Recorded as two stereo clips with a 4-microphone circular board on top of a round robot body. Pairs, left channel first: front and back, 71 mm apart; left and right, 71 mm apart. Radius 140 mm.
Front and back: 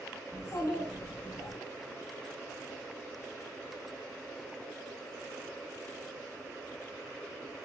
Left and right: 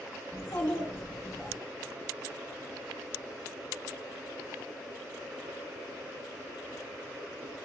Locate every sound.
0.3 s a child speaking: 45° left, 1.1 m